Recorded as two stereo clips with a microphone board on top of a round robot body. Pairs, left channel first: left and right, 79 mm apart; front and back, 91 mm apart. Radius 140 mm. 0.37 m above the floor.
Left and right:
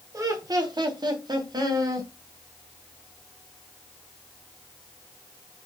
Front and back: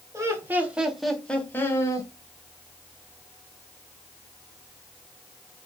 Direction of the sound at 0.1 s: 125° right.